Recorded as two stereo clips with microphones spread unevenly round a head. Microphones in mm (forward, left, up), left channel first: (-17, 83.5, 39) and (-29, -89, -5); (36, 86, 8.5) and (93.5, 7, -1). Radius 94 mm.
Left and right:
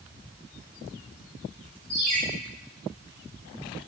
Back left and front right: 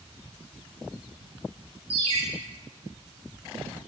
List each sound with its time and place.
1.9 s a ringtone: 40° right, 7.5 m